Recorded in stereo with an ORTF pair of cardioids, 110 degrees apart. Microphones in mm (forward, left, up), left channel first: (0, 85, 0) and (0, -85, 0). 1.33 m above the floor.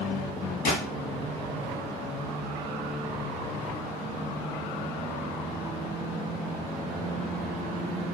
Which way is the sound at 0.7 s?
70° left.